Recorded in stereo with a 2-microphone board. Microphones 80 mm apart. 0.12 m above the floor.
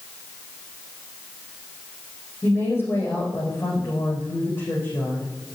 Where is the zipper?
I don't hear a zipper.